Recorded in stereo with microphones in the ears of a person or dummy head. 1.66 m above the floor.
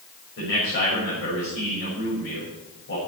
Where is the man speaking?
60° left (ahead or behind), 7 m.